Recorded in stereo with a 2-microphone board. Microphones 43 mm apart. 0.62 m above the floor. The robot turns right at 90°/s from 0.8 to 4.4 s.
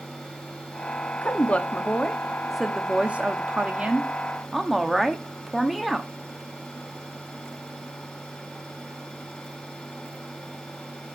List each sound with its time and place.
1.2 s a woman speaking: 70° left, 1.1 m; by 6.1 s 5° right, 1.1 m